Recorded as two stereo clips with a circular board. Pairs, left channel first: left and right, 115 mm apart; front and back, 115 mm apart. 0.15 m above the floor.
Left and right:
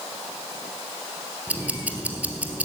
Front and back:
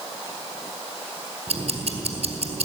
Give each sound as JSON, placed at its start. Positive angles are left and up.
{"t": 1.5, "sound": "ticking", "azimuth_deg": -165, "distance_m": 1.5}